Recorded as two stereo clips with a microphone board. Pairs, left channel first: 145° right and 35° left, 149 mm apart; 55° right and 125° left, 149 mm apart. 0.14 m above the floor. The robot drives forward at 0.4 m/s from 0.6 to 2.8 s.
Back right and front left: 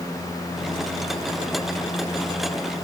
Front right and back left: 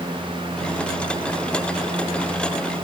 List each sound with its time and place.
Only background noise.